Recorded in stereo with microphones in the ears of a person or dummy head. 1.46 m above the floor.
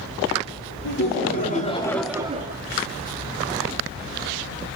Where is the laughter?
55° left (ahead or behind), 1.4 m; by 2.6 s 50° right (ahead or behind), 0.7 m.